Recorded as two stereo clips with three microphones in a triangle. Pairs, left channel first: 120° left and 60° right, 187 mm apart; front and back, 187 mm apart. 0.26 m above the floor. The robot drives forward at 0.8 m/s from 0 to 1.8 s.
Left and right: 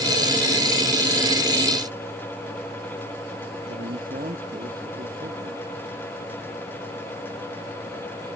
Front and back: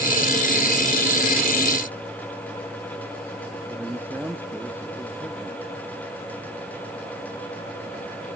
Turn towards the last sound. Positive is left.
turn(degrees=-100)